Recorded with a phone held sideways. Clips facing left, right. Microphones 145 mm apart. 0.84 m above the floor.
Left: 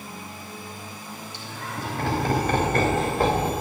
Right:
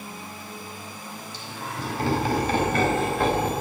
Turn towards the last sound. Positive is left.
turn(degrees=30)  # may be behind; listen again after turning